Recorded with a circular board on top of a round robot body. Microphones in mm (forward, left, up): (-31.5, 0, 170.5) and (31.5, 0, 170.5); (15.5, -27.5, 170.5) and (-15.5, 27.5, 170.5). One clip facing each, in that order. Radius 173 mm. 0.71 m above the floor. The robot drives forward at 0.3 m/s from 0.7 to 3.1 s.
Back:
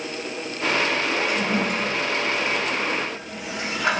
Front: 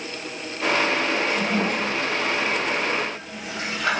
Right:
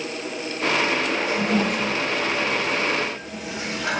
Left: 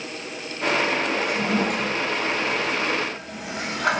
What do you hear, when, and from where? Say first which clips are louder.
1.3 s a toilet flushing: even, right 1 dB; 100° left, 2.5 m; by 4.0 s 110° left, 2.5 m